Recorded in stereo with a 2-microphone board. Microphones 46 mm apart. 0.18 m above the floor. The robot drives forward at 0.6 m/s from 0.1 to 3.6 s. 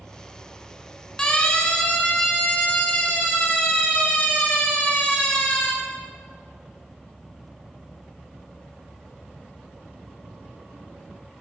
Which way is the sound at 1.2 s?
20° left (ahead or behind).